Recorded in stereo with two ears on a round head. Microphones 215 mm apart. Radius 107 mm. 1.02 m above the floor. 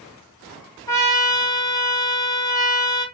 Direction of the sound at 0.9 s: 15° left (ahead or behind).